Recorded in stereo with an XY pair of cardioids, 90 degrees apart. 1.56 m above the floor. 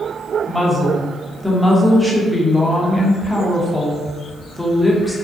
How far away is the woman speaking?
About 0.8 m.